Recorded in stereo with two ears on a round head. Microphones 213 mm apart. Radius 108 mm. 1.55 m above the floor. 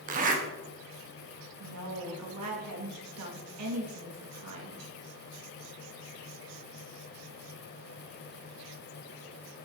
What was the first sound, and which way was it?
A zipper, 35° right (ahead or behind).